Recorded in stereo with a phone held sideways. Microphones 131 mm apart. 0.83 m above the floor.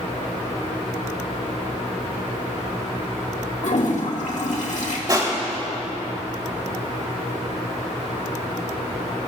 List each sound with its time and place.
3.6 s a toilet flushing: 65° left (ahead or behind), 1.8 m
5.1 s crushing: 30° right (ahead or behind), 2.5 m